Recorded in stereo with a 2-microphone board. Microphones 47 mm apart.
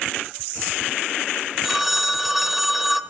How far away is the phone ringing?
About 0.6 m.